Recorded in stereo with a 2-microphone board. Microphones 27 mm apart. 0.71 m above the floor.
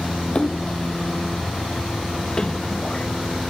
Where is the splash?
35° left (ahead or behind).